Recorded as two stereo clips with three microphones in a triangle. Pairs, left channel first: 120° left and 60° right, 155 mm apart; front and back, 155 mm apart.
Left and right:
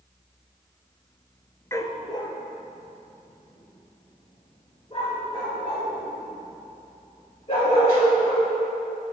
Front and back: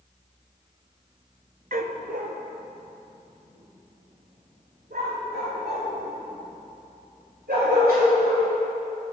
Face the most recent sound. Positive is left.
turn(degrees=170)